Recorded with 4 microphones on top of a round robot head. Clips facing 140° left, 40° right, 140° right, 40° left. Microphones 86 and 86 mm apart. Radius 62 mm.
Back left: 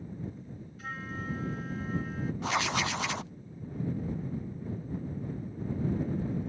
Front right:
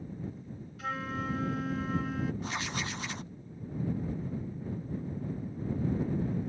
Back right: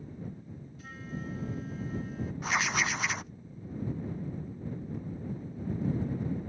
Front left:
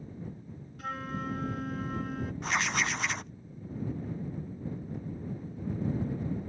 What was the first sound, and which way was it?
A flute, 5° right.